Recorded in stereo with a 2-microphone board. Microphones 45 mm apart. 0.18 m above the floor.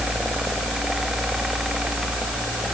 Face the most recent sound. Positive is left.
No sound to turn to.